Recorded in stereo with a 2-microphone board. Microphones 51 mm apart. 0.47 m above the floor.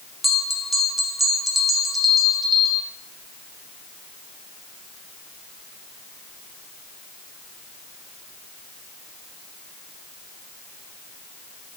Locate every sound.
0.2 s a bell: centre (ahead or behind), 1.0 m